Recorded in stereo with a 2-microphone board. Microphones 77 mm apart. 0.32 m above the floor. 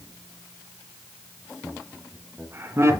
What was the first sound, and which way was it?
Laughter, 20° right (ahead or behind).